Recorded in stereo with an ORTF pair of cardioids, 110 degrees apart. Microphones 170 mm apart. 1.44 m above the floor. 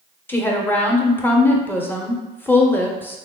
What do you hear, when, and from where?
0.3 s a woman speaking: 10° left, 0.7 m